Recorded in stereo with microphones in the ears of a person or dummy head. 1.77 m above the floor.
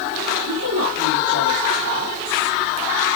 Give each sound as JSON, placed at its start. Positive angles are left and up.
{"t": 0.5, "sound": "a woman speaking", "side_deg": -75, "distance_m": 2.5}